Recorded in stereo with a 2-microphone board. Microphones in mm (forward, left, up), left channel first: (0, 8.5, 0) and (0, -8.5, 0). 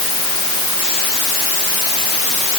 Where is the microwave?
I don't hear a microwave.